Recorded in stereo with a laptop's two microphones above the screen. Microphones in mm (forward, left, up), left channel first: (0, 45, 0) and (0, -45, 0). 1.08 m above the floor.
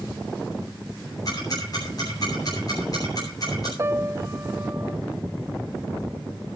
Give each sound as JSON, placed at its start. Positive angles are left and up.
{"t": 1.2, "sound": "ticking", "side_deg": 45, "distance_m": 8.5}
{"t": 3.8, "sound": "a piano", "side_deg": -30, "distance_m": 0.8}